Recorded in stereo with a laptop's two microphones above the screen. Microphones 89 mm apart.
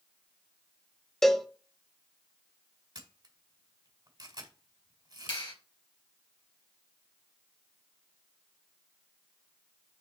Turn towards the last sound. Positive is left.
turn(degrees=80)